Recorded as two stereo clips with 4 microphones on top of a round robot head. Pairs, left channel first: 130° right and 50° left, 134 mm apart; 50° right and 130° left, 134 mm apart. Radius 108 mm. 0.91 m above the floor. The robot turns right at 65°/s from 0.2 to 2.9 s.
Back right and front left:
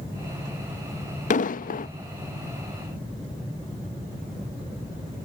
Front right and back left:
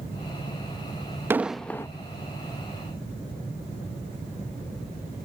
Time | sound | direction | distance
1.3 | an explosion | 155° right | ?